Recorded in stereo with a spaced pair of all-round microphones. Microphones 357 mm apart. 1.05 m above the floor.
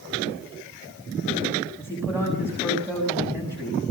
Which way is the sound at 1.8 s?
5° right (ahead or behind).